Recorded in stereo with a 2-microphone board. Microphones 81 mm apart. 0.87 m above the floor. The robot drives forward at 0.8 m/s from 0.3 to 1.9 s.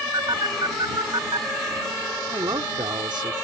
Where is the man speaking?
70° right (ahead or behind).